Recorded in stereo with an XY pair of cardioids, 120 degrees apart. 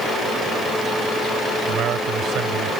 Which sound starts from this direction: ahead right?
A man speaking, at 1.7 s.